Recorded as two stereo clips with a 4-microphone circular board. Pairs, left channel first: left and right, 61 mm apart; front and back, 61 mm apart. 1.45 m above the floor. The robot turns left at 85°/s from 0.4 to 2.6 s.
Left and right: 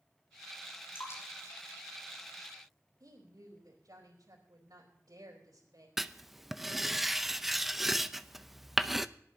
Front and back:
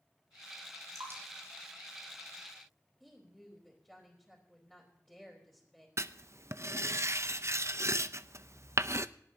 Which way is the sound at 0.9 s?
145° left.